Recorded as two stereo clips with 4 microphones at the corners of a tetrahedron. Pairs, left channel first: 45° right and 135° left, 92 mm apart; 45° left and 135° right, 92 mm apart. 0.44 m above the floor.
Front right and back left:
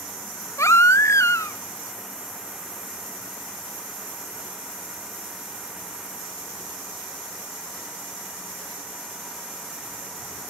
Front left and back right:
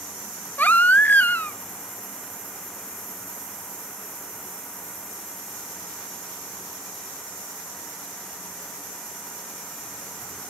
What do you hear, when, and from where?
0.6 s a baby crying: 15° right, 0.5 m